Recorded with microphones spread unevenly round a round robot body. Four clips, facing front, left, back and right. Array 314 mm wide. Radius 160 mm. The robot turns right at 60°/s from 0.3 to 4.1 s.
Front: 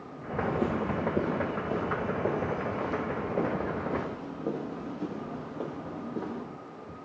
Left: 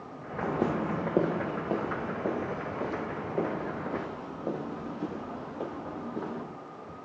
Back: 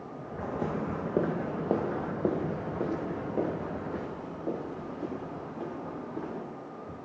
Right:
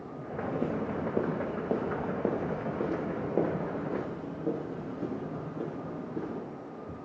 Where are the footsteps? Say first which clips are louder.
Left 3 dB, front 3 dB; 70° left, 2 m; by 6.4 s 35° right, 9.5 m.